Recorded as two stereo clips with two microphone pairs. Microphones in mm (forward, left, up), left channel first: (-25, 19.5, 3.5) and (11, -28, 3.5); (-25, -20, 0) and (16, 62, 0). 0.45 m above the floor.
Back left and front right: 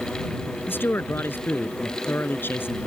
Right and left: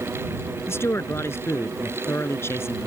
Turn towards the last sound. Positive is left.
turn(degrees=180)